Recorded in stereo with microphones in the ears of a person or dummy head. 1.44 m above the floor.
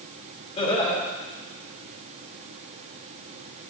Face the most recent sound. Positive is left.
turn(degrees=30)  # may be behind; listen again after turning